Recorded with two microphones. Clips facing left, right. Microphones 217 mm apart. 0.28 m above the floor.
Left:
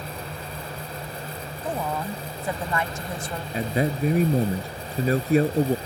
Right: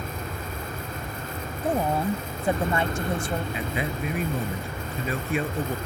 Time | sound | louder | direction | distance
0.0 | an aircraft | right 1 dB | 50° right (ahead or behind) | ?
1.6 | a woman speaking | right 5 dB | 30° right (ahead or behind) | ?
3.5 | a man speaking | left 5 dB | 40° left (ahead or behind) | ?